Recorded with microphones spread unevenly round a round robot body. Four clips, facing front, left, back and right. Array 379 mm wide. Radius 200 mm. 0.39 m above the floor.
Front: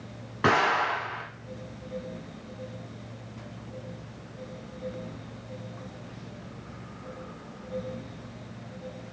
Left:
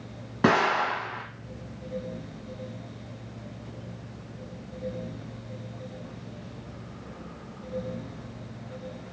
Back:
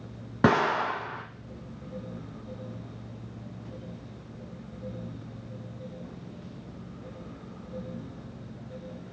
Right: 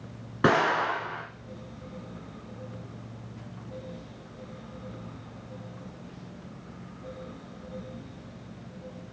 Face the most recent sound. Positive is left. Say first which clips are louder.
# left 1 dB, even
turn(degrees=170)